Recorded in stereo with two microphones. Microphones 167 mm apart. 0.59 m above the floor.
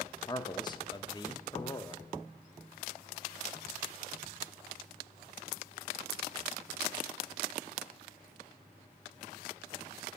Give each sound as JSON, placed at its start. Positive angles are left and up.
{"t": 0.3, "sound": "a man speaking", "side_deg": 25, "distance_m": 0.6}